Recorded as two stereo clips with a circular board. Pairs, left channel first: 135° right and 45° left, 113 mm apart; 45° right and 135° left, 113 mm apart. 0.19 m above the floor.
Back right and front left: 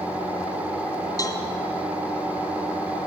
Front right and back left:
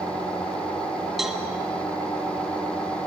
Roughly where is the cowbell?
Behind right.